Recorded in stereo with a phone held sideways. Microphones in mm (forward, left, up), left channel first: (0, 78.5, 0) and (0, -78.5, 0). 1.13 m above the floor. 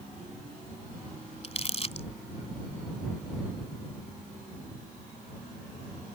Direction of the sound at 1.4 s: 45° left (ahead or behind).